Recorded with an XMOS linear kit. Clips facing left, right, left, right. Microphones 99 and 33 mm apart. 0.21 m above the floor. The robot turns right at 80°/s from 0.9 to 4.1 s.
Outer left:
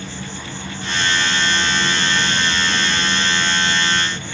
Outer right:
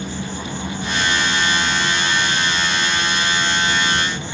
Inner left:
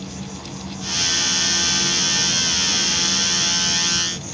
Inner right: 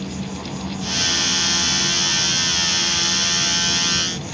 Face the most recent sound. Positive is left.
turn(degrees=-150)